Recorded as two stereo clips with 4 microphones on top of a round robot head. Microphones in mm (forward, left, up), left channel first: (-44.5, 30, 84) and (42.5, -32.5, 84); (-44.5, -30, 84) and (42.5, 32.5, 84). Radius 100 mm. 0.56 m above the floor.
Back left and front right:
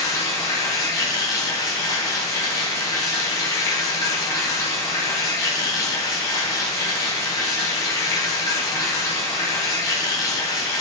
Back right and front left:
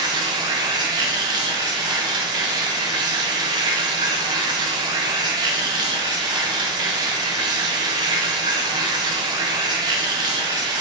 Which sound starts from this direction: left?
Running water, at 0.0 s.